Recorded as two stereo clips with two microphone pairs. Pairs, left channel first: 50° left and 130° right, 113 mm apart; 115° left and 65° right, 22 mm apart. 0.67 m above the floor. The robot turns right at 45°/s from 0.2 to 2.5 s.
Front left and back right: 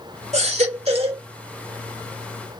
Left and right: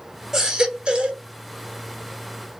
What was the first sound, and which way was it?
A baby crying, 130° right.